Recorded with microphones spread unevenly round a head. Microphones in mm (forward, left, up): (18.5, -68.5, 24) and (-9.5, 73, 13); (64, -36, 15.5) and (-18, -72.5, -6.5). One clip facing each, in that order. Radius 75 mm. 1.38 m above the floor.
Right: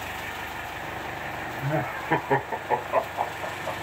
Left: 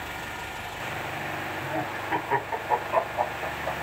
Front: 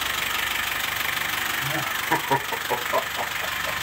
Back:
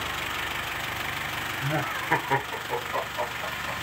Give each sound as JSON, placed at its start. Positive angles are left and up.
{"t": 1.6, "sound": "laughter", "azimuth_deg": -100, "distance_m": 0.8}